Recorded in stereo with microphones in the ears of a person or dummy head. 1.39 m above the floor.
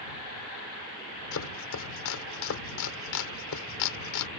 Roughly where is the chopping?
Left.